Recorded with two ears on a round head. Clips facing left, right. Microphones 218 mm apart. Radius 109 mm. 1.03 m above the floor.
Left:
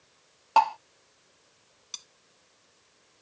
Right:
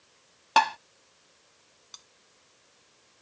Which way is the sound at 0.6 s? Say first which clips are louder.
Left 1 dB; 25° right (ahead or behind).